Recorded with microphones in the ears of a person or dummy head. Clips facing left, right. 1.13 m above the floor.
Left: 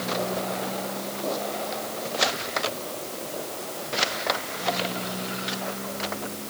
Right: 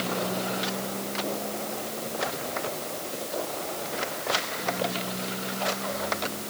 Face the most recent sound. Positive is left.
No sound to turn to.